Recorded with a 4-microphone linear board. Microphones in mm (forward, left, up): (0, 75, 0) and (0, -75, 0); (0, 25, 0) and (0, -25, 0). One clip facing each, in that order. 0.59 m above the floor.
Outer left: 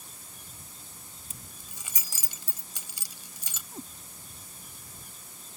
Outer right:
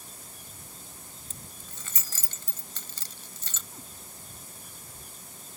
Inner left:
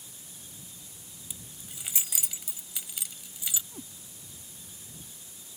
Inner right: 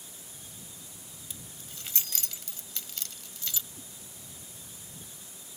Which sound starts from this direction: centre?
Keys jangling, at 1.3 s.